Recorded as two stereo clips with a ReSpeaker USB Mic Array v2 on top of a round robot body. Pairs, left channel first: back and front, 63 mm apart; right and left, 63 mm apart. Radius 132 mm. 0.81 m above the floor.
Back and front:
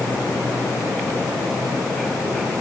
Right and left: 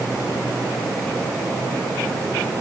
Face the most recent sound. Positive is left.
No sound to turn to.